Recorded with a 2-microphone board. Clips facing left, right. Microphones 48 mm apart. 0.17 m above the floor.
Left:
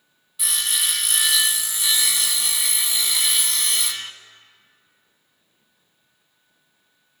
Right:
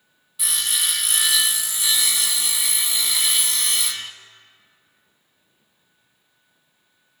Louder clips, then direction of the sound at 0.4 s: Even; centre (ahead or behind).